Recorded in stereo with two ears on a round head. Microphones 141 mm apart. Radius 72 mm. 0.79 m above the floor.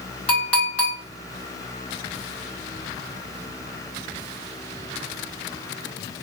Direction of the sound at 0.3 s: 10° left (ahead or behind).